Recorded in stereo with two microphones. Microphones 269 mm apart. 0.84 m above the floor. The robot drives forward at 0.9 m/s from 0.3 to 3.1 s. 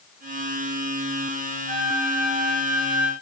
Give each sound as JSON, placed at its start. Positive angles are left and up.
{"t": 1.7, "sound": "a flute", "side_deg": -25, "distance_m": 4.0}